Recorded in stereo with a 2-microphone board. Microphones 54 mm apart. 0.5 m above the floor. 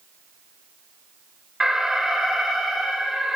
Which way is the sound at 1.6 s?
10° right (ahead or behind).